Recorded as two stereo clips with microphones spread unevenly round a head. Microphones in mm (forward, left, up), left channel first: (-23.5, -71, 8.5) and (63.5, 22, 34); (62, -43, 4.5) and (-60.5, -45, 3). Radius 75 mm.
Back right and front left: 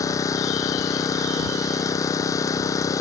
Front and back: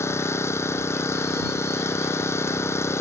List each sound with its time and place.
0.0 s an engine running: 65° right